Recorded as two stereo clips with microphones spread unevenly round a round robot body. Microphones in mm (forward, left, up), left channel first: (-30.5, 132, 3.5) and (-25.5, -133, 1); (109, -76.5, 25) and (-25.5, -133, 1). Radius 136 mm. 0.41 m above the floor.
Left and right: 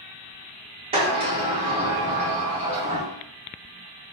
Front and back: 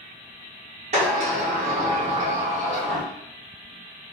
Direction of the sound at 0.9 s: 155° right.